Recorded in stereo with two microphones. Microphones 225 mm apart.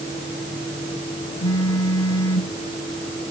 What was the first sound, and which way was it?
A phone buzzing, 80° left.